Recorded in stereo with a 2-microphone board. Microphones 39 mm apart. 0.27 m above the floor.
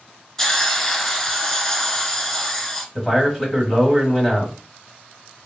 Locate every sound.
0.4 s a hiss: 10° left (ahead or behind), 0.7 m
3.0 s a man speaking: 5° left (ahead or behind), 1.3 m